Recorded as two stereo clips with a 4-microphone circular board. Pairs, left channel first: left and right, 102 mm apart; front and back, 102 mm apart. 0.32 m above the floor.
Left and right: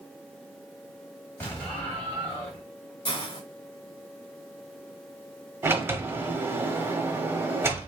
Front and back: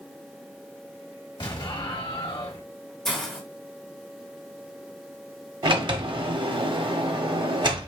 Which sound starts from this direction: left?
A hiss, at 3.0 s.